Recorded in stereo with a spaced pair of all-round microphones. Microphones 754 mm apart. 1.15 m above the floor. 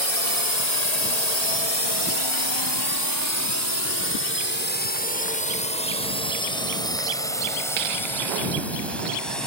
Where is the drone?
50° left (ahead or behind); by 9.5 s centre (ahead or behind).